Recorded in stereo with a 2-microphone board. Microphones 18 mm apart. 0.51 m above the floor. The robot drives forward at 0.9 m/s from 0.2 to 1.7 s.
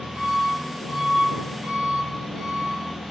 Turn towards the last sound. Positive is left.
turn(degrees=-35)  # may be behind; listen again after turning